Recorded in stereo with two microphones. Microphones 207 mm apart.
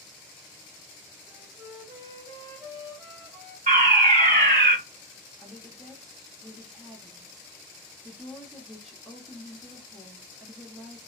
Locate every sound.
1.3 s a flute: 35° right (ahead or behind), 1.4 m
3.7 s a fire alarm: 40° right (ahead or behind), 2 m
5.4 s a woman speaking: centre (ahead or behind), 0.7 m